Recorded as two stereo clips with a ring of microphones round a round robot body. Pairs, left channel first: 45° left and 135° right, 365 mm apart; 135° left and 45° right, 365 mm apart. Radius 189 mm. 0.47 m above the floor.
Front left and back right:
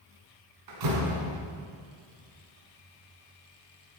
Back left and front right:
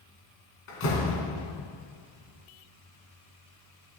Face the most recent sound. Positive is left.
turn(degrees=-170)